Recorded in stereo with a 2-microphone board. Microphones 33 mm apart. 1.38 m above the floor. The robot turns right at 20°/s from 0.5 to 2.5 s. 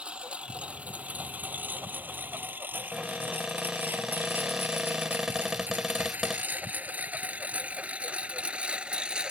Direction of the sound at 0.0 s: 35° right (ahead or behind).